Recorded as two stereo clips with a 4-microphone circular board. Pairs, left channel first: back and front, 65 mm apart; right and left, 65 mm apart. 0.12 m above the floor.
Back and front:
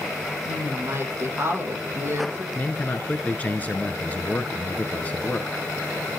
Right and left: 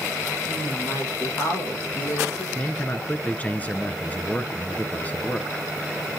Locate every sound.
0.5 s a woman speaking: 50° right, 5.5 m
2.5 s a man speaking: 135° right, 1.3 m